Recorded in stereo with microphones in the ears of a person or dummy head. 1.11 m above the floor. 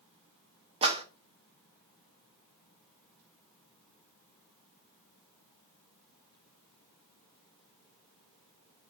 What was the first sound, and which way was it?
A clap, 25° right (ahead or behind).